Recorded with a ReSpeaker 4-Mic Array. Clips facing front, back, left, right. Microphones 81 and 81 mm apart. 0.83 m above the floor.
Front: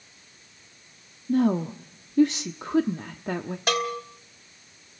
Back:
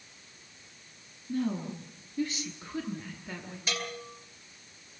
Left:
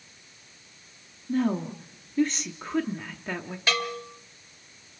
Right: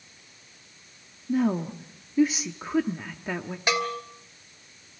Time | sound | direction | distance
1.3 | a woman speaking | 5° right | 1.1 m
3.7 | a bell | 20° right | 2.5 m